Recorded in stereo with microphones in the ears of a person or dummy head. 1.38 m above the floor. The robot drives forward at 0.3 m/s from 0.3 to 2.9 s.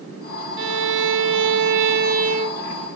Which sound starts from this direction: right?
A violin, at 0.6 s.